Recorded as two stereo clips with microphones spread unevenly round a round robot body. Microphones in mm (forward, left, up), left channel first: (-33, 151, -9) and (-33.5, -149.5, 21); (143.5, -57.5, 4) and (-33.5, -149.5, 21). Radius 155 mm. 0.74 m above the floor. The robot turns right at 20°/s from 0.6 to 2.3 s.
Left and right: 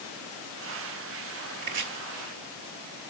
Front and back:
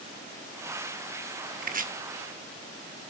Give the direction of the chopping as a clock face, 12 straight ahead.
4 o'clock.